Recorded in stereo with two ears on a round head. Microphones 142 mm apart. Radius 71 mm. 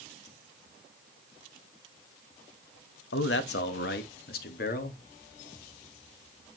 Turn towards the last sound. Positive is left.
turn(degrees=60)  # may be behind; listen again after turning